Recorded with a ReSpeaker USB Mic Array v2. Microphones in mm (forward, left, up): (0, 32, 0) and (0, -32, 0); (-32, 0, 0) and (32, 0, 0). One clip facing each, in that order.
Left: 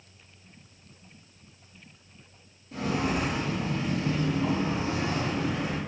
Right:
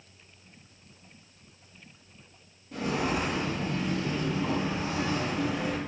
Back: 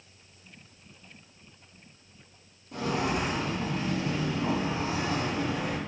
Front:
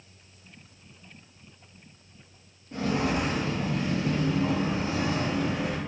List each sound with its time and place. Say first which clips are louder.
2.7 s footsteps: left 1 dB, front 2 dB; 5° right, 1.6 m; by 5.8 s 40° left, 2.5 m